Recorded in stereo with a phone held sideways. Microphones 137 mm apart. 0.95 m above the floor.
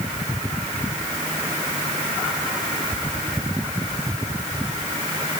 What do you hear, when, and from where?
Only background noise.